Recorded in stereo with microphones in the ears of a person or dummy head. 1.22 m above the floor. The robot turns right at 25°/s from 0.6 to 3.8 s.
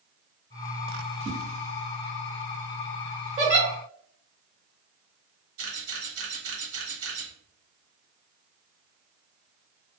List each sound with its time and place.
1.2 s a whoosh: 30° right (ahead or behind), 0.6 m
3.4 s a giggle: 35° right (ahead or behind), 0.9 m; by 3.7 s 40° right (ahead or behind), 0.9 m
5.6 s a camera shutter: 80° right, 1.0 m